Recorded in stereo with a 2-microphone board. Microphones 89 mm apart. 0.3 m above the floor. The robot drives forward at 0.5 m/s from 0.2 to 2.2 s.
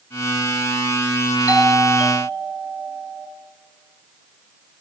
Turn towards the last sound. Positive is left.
turn(degrees=-20)  # may be behind; listen again after turning